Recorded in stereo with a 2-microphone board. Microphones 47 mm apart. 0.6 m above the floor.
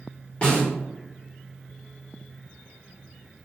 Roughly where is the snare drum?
Left.